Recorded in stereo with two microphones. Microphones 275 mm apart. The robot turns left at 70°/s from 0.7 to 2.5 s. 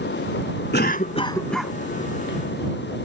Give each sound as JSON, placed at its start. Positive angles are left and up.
{"t": 0.7, "sound": "a cough", "azimuth_deg": 60}